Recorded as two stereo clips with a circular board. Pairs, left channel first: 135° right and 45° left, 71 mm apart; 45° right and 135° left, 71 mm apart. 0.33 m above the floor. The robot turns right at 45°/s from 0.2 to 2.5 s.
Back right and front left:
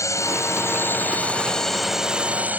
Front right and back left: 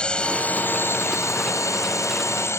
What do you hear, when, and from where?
0.0 s a drone: 120° right; by 2.6 s 15° right